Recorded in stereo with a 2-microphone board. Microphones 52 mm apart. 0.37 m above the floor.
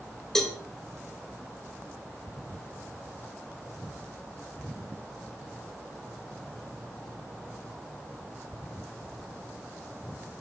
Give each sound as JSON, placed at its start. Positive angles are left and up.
{"t": 0.3, "sound": "a cowbell", "side_deg": 10, "distance_m": 2.0}